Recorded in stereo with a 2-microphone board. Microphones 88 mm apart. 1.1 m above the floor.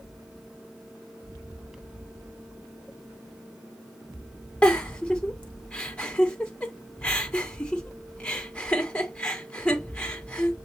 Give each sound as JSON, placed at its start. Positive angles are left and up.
{"t": 4.6, "sound": "a giggle", "side_deg": 15, "distance_m": 1.3}